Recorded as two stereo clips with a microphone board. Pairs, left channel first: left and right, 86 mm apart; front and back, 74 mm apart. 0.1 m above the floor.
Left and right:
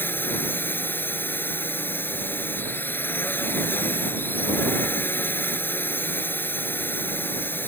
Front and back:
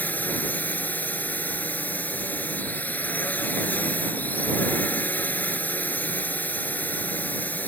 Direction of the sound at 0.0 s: 45° left.